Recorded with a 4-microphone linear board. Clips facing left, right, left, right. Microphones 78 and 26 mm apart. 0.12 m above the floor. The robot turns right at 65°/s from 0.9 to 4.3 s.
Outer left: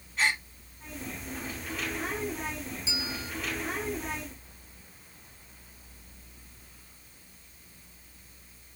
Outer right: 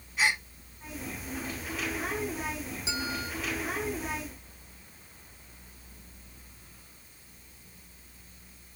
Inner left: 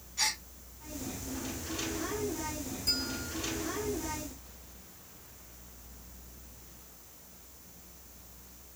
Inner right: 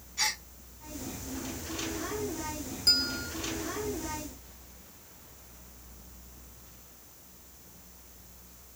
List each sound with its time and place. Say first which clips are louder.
0.2 s a gasp: even, inner right 1 dB; 10° right (ahead or behind), 0.7 m
2.9 s a bell: outer right 6 dB, inner right 7 dB; 60° right (ahead or behind), 2 m; by 3.3 s 35° right (ahead or behind), 2 m